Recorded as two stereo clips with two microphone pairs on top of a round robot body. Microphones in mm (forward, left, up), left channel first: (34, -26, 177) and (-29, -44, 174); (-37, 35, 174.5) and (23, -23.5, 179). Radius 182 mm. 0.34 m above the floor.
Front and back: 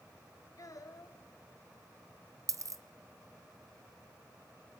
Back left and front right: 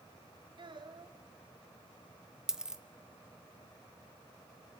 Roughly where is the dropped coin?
Behind right.